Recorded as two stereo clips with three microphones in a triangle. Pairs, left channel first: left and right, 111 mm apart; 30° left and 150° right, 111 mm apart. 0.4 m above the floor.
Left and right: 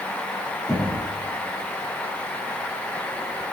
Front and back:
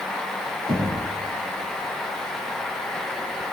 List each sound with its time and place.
0.7 s knocking: straight behind, 5 m